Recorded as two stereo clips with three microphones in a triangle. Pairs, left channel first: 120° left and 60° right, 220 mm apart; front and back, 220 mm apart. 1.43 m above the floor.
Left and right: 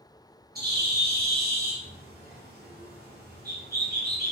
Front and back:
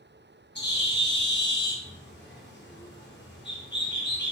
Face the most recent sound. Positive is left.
turn(degrees=-25)